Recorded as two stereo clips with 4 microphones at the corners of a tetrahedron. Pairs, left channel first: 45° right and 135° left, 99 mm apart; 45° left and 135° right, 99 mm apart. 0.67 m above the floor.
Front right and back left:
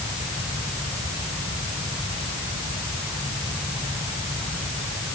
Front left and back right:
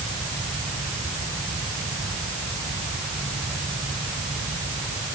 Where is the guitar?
No guitar in this recording.